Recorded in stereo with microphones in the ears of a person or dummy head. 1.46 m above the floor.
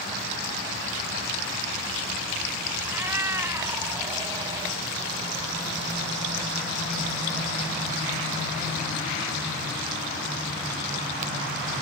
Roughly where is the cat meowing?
Centre.